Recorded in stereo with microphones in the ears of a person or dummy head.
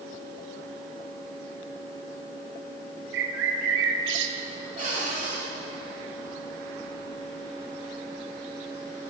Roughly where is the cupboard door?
Right.